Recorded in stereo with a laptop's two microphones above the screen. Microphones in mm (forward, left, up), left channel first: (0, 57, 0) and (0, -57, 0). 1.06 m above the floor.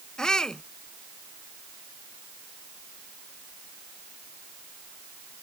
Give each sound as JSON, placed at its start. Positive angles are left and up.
{"t": 0.2, "sound": "a shout", "side_deg": 5}